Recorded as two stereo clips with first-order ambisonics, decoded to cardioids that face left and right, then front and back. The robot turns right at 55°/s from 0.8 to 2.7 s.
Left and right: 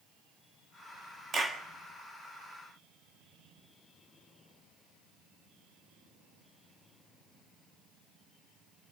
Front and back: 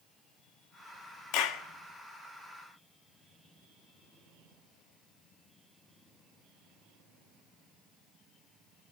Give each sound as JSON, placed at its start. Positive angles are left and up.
{"t": 1.3, "sound": "a clap", "azimuth_deg": -25, "distance_m": 1.9}